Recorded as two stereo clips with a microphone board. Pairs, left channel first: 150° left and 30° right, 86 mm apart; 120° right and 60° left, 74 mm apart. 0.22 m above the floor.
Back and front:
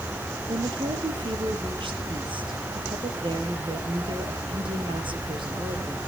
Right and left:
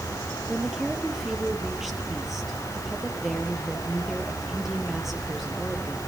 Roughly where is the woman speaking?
Ahead right.